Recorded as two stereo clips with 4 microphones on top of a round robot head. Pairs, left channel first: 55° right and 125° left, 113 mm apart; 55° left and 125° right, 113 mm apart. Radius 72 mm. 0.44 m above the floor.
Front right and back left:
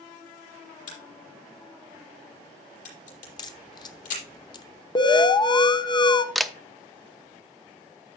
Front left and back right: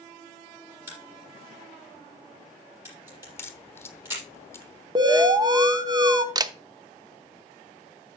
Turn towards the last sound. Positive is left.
turn(degrees=-145)